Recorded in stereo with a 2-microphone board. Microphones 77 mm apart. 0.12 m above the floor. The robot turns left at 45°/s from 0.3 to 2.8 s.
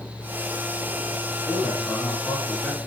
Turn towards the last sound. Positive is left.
turn(degrees=135)